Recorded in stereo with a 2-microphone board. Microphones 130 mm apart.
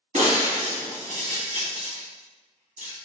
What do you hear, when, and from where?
0.1 s breaking glass: 70° right (ahead or behind), 1.1 m